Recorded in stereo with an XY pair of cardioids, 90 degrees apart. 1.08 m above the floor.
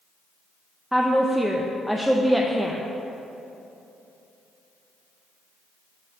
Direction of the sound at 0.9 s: Straight ahead.